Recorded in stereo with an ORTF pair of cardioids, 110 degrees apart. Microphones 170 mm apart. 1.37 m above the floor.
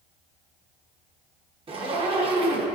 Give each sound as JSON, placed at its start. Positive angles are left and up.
{"t": 1.7, "sound": "a zipper", "azimuth_deg": -30, "distance_m": 1.0}